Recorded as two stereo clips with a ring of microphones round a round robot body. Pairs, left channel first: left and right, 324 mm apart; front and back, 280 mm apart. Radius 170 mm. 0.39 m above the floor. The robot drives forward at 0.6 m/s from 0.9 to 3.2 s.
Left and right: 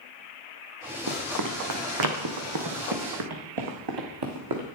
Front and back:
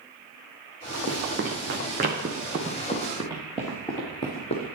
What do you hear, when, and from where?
1.1 s running footsteps: 125° right, 1.3 m; by 4.8 s 65° right, 2 m